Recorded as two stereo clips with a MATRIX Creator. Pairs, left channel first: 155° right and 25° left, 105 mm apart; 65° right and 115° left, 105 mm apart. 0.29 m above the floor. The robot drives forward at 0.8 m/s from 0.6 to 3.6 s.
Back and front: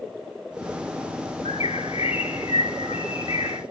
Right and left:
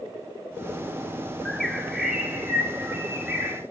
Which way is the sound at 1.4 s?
155° right.